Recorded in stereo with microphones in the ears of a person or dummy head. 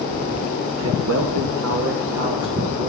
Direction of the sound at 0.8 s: 70° right (ahead or behind).